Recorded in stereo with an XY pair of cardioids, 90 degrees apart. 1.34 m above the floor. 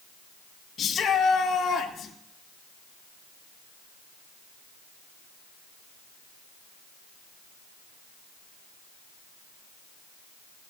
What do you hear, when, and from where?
0.8 s a shout: 60° left, 1.8 m